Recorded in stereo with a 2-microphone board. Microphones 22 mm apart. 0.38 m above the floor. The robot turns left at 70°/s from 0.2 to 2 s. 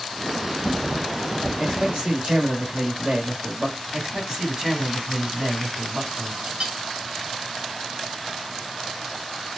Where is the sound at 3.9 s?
40° right (ahead or behind), 2 m.